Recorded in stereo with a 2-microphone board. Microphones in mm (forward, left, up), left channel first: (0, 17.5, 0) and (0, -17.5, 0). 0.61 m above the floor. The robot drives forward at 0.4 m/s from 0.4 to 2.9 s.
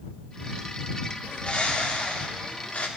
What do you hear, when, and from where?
1.2 s a bird: 45° left (ahead or behind), 1.5 m; by 2.9 s 50° left (ahead or behind), 1.4 m